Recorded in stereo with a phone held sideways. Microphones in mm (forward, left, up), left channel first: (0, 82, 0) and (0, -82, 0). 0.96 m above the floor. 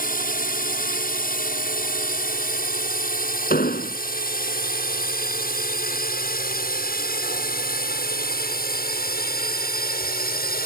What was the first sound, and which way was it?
A drone, 60° left (ahead or behind).